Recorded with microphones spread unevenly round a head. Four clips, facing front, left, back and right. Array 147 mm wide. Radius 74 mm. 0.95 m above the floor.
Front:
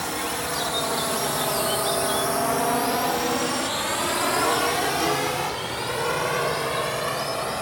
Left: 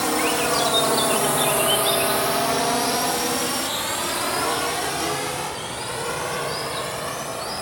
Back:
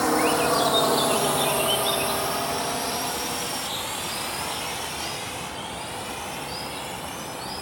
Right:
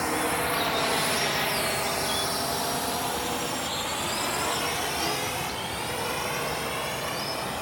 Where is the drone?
150° left; by 7.6 s 15° left.